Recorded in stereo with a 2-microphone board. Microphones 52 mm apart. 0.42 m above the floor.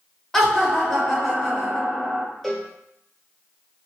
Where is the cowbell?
5° left (ahead or behind), 1.3 m.